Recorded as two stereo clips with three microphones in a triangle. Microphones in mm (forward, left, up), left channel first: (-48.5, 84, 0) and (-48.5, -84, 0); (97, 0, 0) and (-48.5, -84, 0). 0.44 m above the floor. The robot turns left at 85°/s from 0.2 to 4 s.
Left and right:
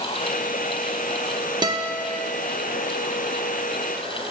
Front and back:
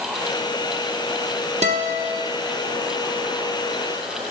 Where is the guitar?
140° right, 0.7 m; by 2.2 s 165° left, 0.7 m.